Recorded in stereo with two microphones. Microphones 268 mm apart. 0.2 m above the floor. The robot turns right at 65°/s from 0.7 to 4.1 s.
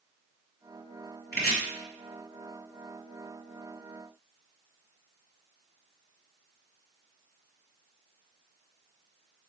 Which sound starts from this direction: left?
Chopping, at 1.3 s.